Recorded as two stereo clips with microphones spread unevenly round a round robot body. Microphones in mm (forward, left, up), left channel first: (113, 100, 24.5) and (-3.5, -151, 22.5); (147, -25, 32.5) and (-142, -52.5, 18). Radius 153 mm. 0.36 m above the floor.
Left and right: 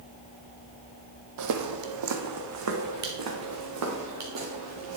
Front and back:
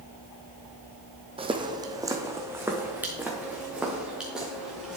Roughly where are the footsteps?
Right.